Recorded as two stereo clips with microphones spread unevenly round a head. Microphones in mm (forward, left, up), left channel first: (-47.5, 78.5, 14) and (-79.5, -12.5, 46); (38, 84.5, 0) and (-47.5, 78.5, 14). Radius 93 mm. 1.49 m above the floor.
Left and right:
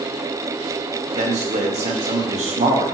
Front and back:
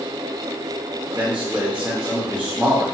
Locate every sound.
1.1 s a man speaking: 90° right, 0.6 m